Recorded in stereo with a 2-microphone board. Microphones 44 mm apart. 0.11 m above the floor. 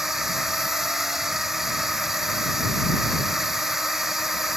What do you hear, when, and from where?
0.0 s a drone: 5° right (ahead or behind)